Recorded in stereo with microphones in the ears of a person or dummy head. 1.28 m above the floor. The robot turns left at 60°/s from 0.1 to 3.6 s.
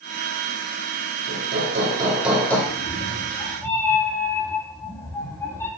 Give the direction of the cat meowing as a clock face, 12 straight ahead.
10 o'clock.